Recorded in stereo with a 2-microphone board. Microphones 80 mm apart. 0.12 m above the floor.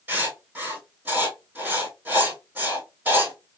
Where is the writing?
20° right (ahead or behind), 3 m.